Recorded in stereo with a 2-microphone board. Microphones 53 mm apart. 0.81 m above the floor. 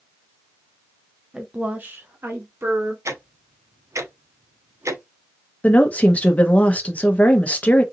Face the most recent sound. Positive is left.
turn(degrees=25)  # may be behind; listen again after turning